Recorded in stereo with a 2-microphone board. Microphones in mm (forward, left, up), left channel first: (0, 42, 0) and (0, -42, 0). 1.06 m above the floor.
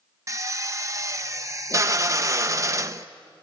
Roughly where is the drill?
Right.